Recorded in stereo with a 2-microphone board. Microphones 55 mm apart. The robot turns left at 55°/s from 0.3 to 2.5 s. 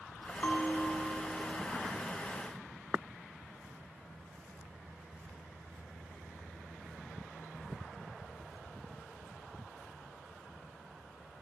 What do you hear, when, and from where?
0.4 s a bell: 30° left, 2.5 m; by 1.7 s 40° right, 2.5 m